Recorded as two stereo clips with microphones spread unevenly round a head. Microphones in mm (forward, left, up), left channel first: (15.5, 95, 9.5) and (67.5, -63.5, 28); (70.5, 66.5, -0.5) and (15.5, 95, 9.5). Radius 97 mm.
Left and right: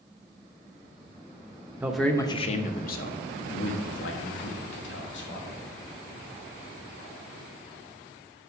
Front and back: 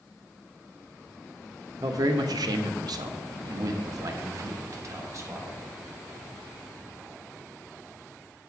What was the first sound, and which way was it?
A man speaking, 155° right.